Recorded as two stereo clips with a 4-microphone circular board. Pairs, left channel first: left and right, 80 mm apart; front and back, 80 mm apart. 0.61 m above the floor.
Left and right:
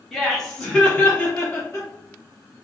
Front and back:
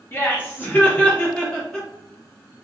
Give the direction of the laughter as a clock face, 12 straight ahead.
12 o'clock.